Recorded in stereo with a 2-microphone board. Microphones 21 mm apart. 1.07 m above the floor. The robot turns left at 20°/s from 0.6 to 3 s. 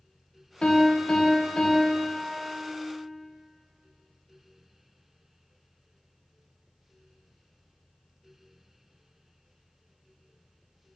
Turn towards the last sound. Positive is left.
turn(degrees=10)